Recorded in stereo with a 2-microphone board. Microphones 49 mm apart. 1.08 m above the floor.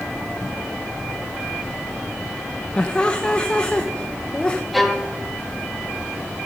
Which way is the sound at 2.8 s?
25° left (ahead or behind).